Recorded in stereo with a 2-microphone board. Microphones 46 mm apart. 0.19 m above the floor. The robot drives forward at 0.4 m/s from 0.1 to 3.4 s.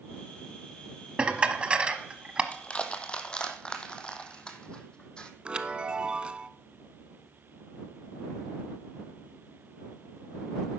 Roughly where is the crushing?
Left.